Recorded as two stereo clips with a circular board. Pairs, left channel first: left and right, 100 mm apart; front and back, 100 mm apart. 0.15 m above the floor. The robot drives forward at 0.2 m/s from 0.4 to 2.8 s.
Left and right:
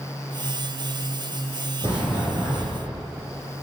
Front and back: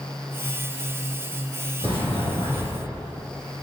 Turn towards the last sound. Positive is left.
turn(degrees=-160)